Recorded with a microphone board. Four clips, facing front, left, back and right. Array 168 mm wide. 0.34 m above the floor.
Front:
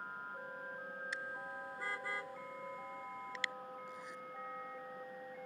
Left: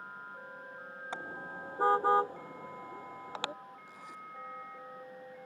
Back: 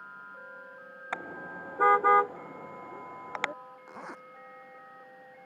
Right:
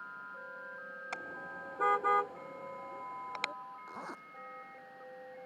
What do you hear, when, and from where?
1.1 s a car horn: 165° left; by 3.5 s 160° left
3.9 s a zipper: 145° right